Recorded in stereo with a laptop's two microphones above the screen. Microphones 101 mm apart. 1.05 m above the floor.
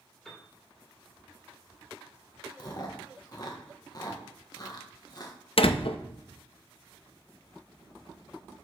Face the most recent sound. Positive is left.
turn(degrees=65)  # may be behind; listen again after turning